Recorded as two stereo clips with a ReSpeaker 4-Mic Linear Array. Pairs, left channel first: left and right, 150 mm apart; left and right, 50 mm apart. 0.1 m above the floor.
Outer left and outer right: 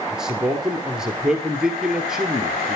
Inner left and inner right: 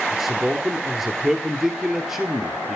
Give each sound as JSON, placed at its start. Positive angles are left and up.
{"t": 0.1, "sound": "a man speaking", "side_deg": -5, "distance_m": 1.5}